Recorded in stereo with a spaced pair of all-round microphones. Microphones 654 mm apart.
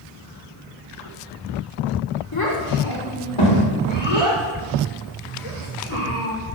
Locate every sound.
2.3 s a child speaking: 35° left (ahead or behind), 3.5 m; by 6.3 s 55° left (ahead or behind), 5.5 m